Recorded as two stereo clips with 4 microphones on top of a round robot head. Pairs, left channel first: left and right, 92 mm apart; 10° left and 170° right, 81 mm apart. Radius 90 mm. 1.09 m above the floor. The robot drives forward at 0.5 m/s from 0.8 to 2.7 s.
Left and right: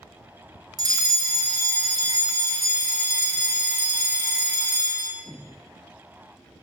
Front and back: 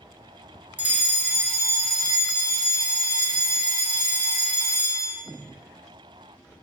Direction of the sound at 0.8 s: 110° right.